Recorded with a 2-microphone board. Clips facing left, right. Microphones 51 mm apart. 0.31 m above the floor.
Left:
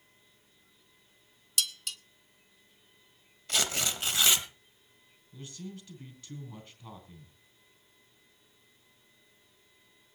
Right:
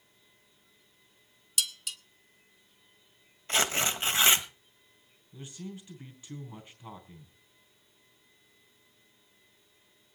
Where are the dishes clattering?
5° right (ahead or behind), 0.7 m.